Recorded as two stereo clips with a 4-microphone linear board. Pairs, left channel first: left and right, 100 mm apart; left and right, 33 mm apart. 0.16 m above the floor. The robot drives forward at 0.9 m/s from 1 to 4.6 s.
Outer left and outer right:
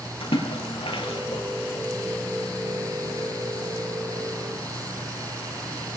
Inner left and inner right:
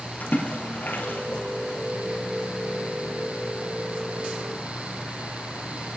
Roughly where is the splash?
Left.